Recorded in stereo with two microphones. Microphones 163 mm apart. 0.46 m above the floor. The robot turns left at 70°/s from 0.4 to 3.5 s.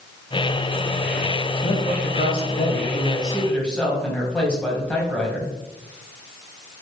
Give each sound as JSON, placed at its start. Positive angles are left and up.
{"t": 1.6, "sound": "a man speaking", "azimuth_deg": 140, "distance_m": 3.0}